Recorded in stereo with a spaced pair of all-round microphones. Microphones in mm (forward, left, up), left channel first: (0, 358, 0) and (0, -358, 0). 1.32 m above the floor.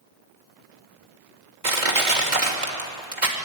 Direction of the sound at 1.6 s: 75° right (ahead or behind).